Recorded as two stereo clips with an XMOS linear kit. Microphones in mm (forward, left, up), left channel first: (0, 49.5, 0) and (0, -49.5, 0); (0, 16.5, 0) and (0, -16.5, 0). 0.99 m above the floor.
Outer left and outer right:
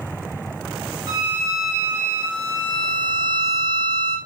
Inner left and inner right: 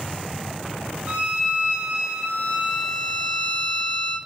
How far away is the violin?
About 0.8 m.